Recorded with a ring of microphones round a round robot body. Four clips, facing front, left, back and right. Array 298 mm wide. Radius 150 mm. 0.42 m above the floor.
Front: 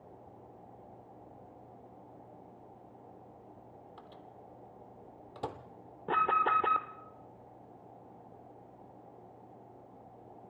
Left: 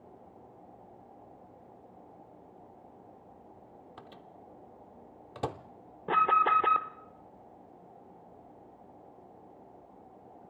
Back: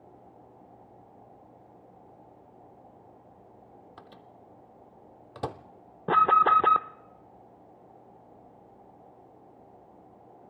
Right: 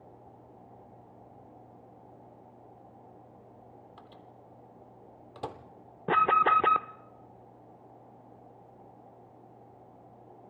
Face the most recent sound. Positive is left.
turn(degrees=-145)